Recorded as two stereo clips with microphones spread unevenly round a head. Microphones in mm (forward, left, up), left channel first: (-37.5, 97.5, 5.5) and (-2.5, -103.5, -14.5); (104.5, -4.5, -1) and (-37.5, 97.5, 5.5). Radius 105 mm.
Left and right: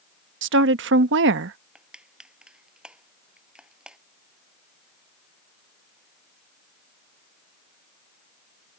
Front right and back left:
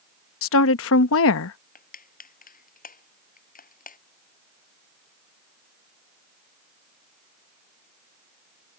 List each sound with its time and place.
0.4 s a woman speaking: 40° right
1.8 s crushing: 5° left